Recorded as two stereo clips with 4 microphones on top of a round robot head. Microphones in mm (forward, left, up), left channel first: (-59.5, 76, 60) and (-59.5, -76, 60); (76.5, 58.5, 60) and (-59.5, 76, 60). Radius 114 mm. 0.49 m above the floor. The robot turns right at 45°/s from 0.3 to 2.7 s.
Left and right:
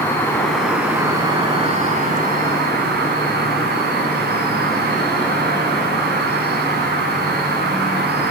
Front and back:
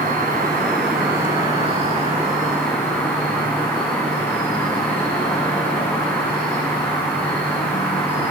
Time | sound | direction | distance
0.0 | an insect | 170° left | 8.5 m